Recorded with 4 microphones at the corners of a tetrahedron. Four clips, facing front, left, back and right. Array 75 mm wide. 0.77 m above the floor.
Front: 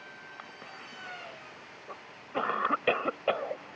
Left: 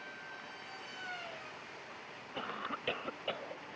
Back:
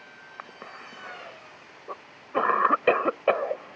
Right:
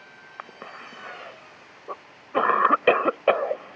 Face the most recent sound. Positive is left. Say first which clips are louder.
# right 8 dB, back 3 dB
turn(degrees=-110)